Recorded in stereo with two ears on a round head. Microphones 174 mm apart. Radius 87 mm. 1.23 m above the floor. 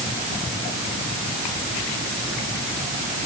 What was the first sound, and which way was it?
Only background noise.